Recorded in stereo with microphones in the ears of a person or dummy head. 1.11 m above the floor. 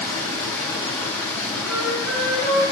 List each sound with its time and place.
0.0 s running water: 10° left (ahead or behind), 1.7 m
1.7 s a flute: 70° right (ahead or behind), 3.5 m